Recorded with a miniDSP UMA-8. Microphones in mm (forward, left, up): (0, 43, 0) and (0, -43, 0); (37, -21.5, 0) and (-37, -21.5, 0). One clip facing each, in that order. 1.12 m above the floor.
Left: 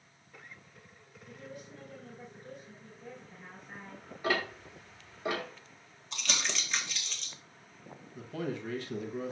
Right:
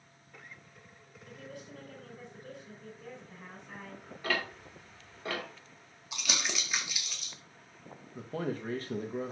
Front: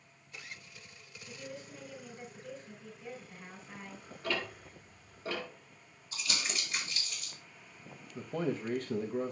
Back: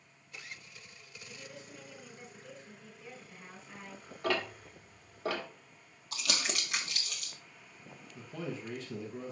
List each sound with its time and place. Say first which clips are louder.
1.3 s a woman speaking: even, front 4 dB; 90° right, 5 m
4.2 s ticking: left 2 dB, back 3 dB; 165° left, 2 m
6.1 s crumpling: even, back 2 dB; 170° right, 1.7 m
8.2 s a man speaking: right 1 dB, front 6 dB; 40° right, 1.1 m